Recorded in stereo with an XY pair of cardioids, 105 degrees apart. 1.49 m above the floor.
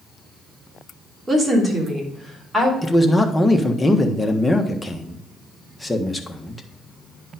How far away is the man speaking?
About 1.4 m.